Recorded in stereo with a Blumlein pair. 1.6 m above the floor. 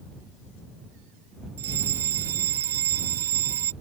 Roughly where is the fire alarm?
Ahead right.